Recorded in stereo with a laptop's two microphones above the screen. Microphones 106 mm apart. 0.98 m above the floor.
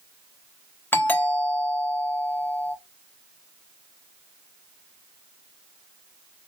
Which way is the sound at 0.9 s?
20° left (ahead or behind).